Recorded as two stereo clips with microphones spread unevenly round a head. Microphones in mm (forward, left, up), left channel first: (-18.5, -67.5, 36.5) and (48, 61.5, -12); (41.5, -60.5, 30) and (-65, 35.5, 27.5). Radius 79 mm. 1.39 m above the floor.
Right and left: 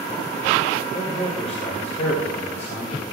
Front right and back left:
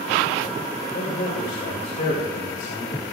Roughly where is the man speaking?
Right.